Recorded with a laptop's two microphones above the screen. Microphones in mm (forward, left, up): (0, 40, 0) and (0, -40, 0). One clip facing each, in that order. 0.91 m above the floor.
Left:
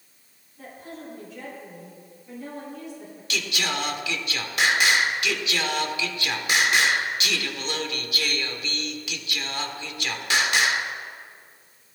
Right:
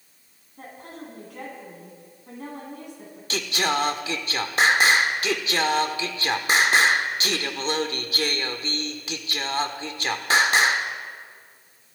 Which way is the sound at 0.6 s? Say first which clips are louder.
Even; 60° right (ahead or behind).